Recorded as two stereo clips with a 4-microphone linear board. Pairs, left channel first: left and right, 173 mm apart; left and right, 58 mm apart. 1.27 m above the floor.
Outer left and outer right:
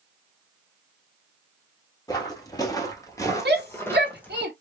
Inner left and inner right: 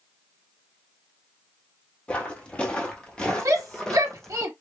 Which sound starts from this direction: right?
A shout, at 3.5 s.